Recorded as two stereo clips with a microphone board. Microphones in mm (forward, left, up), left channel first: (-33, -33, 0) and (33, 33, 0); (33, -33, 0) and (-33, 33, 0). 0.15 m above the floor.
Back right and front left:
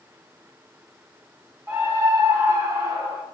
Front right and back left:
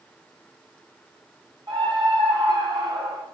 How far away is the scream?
About 8 m.